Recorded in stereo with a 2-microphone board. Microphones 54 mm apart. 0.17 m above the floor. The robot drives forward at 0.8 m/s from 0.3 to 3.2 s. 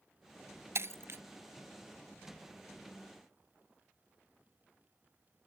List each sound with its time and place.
0.8 s breaking glass: 60° right (ahead or behind); by 1.2 s 50° right (ahead or behind)